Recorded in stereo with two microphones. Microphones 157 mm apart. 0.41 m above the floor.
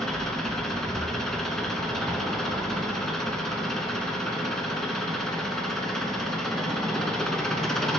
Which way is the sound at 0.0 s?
5° left (ahead or behind).